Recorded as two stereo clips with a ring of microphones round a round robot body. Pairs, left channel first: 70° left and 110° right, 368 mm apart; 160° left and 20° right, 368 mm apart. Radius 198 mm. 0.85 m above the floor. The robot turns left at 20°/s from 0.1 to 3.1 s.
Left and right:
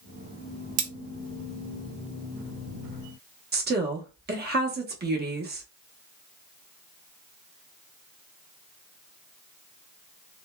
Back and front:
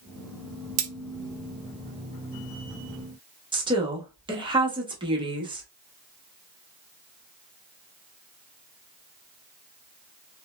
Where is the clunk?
No clunk in this recording.